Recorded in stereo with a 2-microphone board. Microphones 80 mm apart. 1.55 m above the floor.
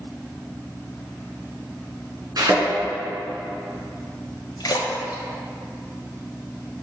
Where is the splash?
55° left (ahead or behind), 1.3 m.